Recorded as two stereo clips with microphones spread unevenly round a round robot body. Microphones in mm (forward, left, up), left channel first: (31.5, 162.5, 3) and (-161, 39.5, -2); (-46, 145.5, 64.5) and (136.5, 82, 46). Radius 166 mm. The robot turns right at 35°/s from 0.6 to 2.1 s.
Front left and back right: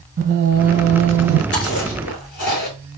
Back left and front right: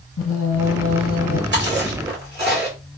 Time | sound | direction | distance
0.2 | singing | straight behind | 0.8 m
1.5 | chewing | 20° right | 2.5 m